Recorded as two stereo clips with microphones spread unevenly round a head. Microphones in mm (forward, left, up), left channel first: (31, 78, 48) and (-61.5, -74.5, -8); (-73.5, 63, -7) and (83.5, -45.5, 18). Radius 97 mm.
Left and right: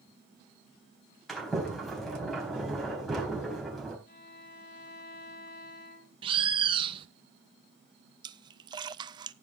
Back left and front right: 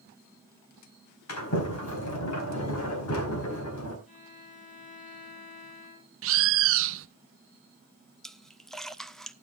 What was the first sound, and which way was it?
A sliding door, 145° left.